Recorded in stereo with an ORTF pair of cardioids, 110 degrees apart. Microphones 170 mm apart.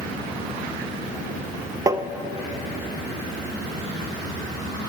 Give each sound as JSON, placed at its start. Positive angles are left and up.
{"t": 1.9, "sound": "tapping", "azimuth_deg": -20, "distance_m": 0.5}